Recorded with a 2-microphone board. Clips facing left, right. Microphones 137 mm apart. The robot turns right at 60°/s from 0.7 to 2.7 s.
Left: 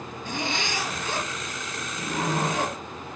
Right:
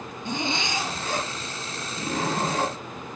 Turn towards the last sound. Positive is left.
turn(degrees=-40)